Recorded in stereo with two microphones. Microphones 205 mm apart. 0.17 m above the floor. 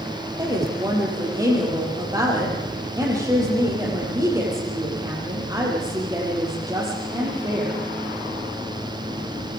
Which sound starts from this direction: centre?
A woman speaking, at 0.4 s.